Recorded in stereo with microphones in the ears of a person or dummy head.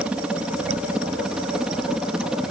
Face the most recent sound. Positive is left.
turn(degrees=-5)  # may be behind; listen again after turning